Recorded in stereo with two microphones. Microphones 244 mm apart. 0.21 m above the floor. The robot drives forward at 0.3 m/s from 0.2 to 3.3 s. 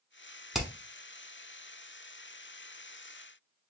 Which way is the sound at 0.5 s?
Centre (ahead or behind).